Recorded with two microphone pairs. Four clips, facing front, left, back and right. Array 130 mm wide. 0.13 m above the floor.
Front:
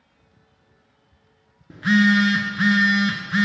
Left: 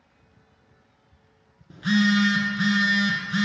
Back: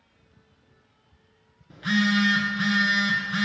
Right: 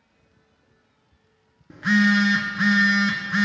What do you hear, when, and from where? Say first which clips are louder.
1.7 s a phone buzzing: right 2 dB, front 6 dB; 30° right, 0.6 m